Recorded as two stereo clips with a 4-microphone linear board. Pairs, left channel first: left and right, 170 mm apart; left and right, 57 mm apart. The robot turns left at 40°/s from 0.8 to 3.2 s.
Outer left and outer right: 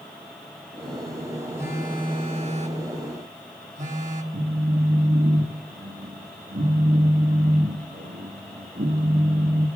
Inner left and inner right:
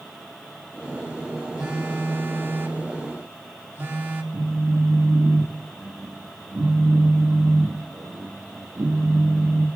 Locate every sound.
1.6 s a phone buzzing: 20° right, 2.0 m; by 4.2 s 85° right, 2.0 m
4.3 s a phone buzzing: 70° right (ahead or behind), 1.7 m